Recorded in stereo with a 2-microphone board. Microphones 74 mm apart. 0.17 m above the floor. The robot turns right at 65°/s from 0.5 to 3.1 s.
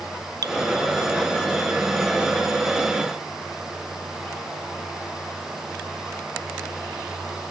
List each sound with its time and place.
0.4 s dripping: 55° right (ahead or behind)